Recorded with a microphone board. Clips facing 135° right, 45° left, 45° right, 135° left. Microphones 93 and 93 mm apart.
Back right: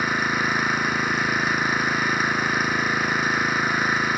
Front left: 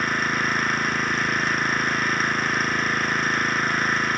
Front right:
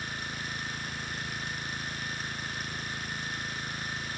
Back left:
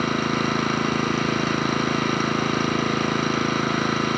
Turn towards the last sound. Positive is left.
turn(degrees=140)